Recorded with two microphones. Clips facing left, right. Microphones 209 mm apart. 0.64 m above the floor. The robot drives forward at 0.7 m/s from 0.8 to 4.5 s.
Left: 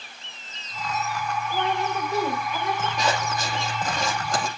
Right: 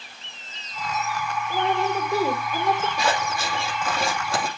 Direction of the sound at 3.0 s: 10° right (ahead or behind).